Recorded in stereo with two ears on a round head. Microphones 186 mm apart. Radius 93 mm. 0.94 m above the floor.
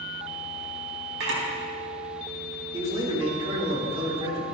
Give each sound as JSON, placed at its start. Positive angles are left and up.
{"t": 1.2, "sound": "a camera shutter", "side_deg": -70, "distance_m": 4.0}
{"t": 2.7, "sound": "a man speaking", "side_deg": -30, "distance_m": 2.5}